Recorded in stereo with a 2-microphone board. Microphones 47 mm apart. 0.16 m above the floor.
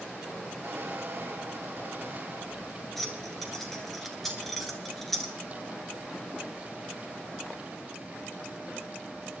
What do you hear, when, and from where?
0.6 s a squeak: 55° right (ahead or behind), 1.7 m
3.0 s keys jangling: 5° left (ahead or behind), 1.9 m